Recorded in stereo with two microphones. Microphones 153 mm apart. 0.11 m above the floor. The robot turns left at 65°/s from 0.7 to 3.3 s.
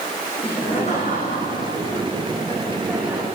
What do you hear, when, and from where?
0.4 s laughter: 145° left, 7 m; by 3.2 s 25° right, 7 m